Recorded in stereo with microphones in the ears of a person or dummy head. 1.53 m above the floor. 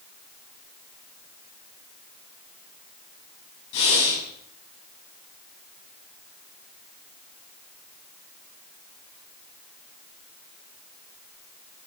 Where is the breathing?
75° left (ahead or behind), 7 m.